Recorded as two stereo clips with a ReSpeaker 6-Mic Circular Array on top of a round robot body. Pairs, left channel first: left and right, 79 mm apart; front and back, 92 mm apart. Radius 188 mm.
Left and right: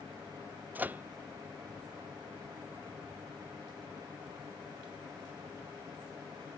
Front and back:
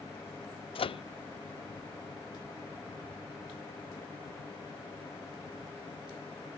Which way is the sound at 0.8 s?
20° right.